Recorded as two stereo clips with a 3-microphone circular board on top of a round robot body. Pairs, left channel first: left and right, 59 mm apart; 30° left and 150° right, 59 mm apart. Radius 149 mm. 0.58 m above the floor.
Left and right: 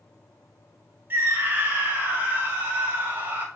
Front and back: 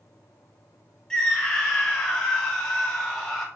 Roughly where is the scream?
Ahead right.